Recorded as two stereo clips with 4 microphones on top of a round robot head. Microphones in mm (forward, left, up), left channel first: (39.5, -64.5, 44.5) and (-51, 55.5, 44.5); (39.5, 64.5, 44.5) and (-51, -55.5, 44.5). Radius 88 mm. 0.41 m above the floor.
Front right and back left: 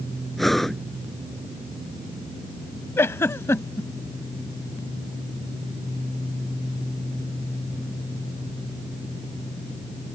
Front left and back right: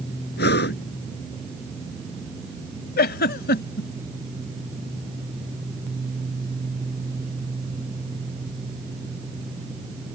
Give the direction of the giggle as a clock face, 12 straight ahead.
11 o'clock.